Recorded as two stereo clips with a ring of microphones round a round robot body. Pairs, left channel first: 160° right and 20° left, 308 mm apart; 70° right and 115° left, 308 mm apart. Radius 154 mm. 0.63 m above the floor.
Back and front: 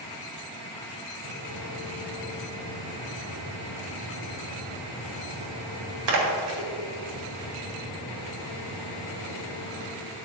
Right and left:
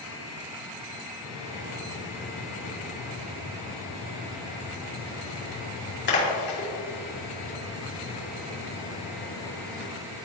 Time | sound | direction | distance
1.2 | a splash | 10° right | 3 m